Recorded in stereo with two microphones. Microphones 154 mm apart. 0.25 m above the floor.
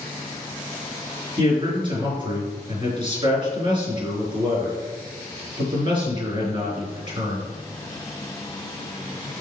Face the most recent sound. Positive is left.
turn(degrees=-30)  # may be behind; listen again after turning